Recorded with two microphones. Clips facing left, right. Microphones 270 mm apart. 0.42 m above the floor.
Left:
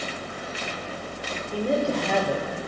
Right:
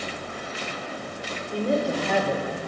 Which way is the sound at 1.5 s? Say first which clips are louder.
Even; 5° left (ahead or behind).